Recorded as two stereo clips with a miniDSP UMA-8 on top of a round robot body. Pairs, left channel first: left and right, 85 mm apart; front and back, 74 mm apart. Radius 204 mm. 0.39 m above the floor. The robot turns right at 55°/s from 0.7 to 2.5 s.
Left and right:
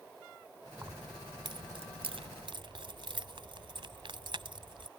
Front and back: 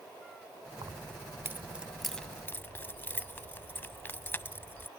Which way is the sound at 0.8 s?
155° right.